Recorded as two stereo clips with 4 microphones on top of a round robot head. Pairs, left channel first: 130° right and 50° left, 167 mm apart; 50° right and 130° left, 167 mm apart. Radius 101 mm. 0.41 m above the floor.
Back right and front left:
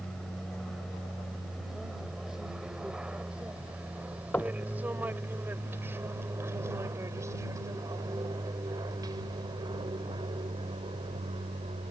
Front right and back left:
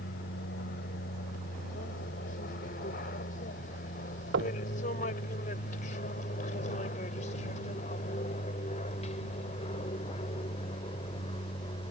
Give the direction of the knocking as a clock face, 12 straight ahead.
7 o'clock.